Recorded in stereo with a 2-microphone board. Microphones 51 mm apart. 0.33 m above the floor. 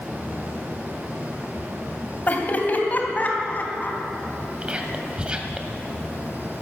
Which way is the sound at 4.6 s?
25° right (ahead or behind).